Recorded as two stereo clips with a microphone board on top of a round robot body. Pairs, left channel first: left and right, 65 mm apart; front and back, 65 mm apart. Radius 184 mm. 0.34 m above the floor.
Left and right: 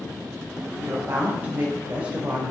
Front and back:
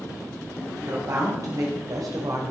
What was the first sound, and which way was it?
A woman speaking, 150° right.